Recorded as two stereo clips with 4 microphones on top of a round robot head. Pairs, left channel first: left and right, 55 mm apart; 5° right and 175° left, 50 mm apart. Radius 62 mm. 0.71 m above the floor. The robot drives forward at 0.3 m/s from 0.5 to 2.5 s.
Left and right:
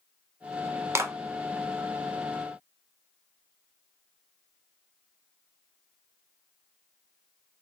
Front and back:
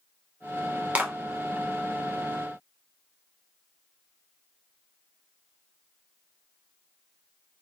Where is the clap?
120° right, 0.6 m; by 1.1 s 125° right, 0.6 m.